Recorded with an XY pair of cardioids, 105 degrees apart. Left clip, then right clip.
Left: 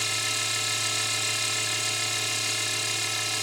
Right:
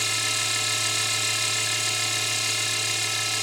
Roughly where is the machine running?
Ahead.